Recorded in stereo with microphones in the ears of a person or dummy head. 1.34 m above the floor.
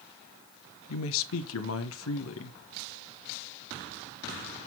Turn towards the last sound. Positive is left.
turn(degrees=80)